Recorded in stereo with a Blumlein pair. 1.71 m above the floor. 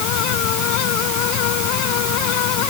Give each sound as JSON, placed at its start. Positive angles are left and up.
{"t": 0.0, "sound": "a fan", "azimuth_deg": 40}